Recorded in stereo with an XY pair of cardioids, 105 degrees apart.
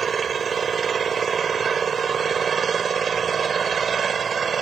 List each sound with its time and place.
0.0 s an engine running: 40° right